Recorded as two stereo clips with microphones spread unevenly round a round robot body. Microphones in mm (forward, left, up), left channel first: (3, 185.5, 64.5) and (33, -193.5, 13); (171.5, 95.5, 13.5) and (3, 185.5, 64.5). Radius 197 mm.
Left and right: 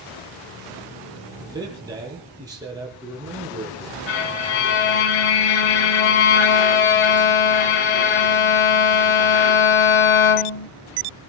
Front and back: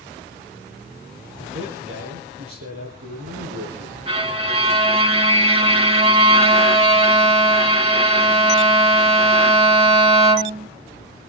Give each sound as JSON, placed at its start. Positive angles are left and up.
{"t": 1.4, "sound": "a man speaking", "azimuth_deg": -165, "distance_m": 7.5}
{"t": 4.1, "sound": "a violin", "azimuth_deg": 90, "distance_m": 3.0}